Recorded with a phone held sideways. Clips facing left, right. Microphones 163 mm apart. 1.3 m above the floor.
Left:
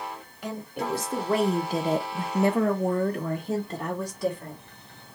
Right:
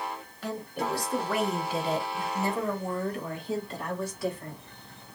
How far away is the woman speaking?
About 1.4 m.